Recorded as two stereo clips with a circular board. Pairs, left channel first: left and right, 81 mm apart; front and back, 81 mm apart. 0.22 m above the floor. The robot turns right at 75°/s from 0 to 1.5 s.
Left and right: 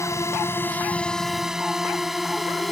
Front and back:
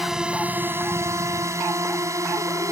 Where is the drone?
95° left; by 2.7 s straight behind.